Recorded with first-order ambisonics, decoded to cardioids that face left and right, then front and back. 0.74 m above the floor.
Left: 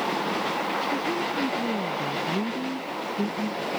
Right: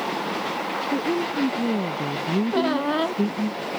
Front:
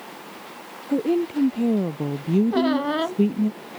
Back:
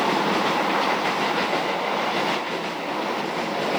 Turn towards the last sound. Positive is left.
turn(degrees=-50)